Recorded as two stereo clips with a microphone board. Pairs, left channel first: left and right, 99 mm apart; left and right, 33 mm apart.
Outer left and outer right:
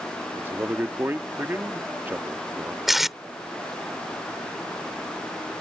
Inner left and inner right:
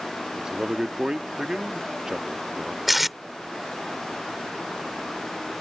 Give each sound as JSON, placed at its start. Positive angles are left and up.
{"t": 0.4, "sound": "a man speaking", "side_deg": -20}
{"t": 2.9, "sound": "tape being pulled", "side_deg": 0}